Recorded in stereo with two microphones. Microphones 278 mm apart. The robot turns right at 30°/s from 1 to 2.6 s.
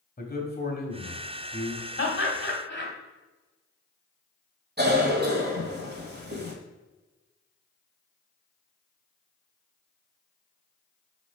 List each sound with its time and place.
0.2 s a man speaking: 35° left (ahead or behind), 1.2 m; by 1.8 s 45° left (ahead or behind), 1.2 m
2.0 s laughter: 45° left (ahead or behind), 1.5 m; by 2.9 s 40° left (ahead or behind), 1.5 m
4.8 s a cough: 35° right (ahead or behind), 1.4 m